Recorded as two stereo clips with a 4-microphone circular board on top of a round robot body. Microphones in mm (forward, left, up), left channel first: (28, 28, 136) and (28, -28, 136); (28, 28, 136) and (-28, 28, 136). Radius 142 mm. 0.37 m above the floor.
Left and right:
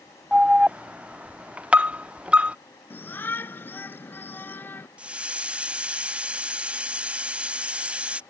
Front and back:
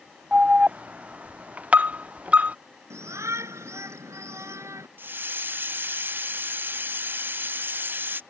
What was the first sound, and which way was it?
An alarm, 140° right.